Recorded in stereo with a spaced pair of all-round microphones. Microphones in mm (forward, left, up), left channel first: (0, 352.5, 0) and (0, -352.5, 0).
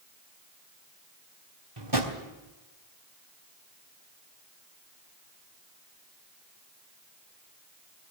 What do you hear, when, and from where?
1.8 s a drawer: 35° right (ahead or behind), 2.5 m